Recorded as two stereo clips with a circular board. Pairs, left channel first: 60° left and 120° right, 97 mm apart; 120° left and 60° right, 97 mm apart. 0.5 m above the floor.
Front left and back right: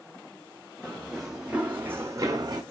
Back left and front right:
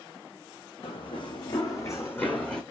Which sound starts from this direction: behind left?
Running footsteps, at 0.8 s.